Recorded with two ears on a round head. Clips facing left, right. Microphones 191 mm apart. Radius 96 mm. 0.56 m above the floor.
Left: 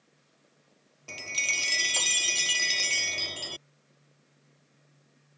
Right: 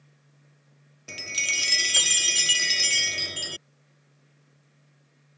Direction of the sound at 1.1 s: 15° right (ahead or behind).